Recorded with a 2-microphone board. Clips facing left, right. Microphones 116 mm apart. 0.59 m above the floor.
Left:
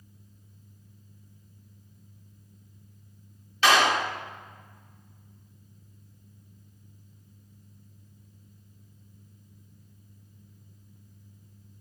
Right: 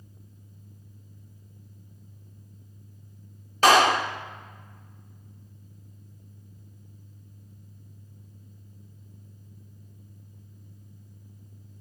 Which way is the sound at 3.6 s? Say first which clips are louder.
Right 4 dB; 45° right (ahead or behind).